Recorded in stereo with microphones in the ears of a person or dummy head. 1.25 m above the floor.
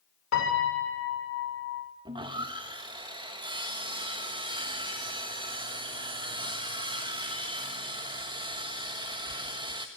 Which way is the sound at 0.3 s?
70° left (ahead or behind).